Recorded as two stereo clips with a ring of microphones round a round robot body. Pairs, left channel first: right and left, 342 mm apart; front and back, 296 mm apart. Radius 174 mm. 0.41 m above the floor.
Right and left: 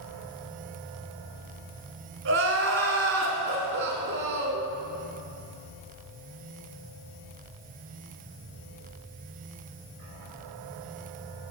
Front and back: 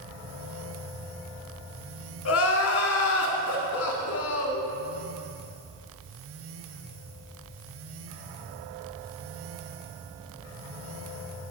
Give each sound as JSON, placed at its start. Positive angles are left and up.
{"t": 2.2, "sound": "crying", "azimuth_deg": 35, "distance_m": 1.1}